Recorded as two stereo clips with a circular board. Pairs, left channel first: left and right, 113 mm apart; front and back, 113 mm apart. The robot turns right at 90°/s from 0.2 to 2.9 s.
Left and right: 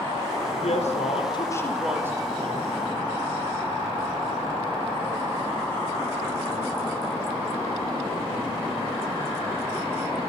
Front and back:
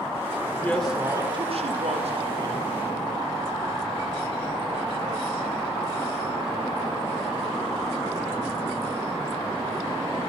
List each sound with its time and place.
0.5 s a woman speaking: 60° left, 4.5 m; by 2.7 s 100° right, 4.5 m